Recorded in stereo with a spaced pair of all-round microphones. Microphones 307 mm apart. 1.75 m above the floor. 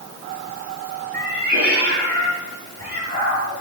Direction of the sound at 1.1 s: 30° right (ahead or behind).